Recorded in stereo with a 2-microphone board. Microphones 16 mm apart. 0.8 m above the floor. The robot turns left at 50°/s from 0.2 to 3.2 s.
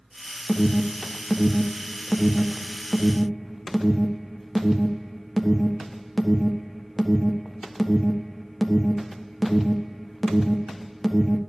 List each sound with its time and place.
0.5 s an alarm: 20° left (ahead or behind), 1.4 m; by 11.4 s centre (ahead or behind), 1.4 m